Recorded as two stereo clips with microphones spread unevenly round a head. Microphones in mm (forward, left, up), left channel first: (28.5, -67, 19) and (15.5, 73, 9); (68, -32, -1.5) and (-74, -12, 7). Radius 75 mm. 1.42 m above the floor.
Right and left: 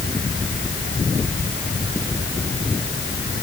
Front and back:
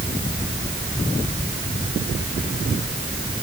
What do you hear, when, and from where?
Only background noise.